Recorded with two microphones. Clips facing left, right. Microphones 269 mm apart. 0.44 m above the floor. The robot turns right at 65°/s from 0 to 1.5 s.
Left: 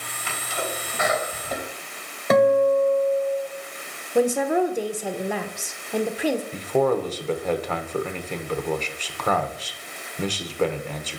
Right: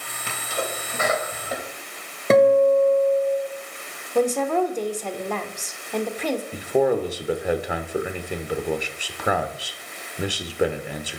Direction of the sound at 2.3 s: 30° right (ahead or behind).